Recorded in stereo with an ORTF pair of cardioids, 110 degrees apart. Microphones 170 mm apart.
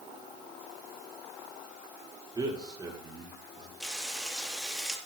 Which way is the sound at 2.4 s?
20° right.